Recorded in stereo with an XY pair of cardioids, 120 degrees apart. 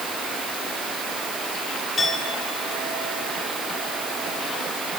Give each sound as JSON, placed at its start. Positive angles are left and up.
{"t": 2.0, "sound": "a clink", "azimuth_deg": 20, "distance_m": 7.0}